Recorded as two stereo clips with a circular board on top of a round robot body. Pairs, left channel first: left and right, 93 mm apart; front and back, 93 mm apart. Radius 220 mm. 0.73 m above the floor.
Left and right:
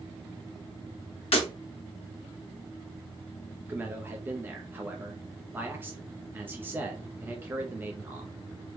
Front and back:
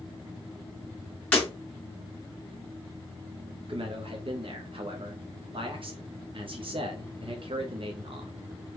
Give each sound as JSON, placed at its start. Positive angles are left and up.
{"t": 1.3, "sound": "breaking glass", "azimuth_deg": 75, "distance_m": 0.6}
{"t": 3.7, "sound": "a man speaking", "azimuth_deg": -160, "distance_m": 0.9}